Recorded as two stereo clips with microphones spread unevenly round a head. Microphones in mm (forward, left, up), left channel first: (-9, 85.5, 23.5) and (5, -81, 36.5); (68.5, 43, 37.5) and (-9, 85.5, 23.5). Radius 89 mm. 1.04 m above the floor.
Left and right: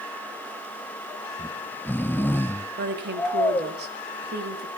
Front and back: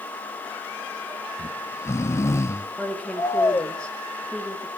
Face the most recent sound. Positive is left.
turn(degrees=-115)